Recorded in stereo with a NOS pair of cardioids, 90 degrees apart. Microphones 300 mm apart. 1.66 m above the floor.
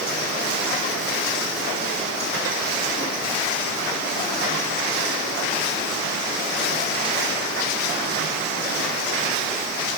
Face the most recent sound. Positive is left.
No sound to turn to.